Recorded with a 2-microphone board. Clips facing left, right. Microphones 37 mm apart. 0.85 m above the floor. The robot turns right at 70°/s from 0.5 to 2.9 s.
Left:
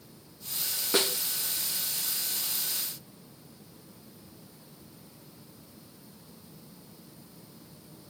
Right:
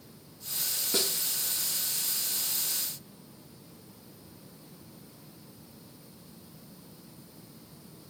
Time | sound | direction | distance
0.9 | a snare drum | 35° left (ahead or behind) | 0.7 m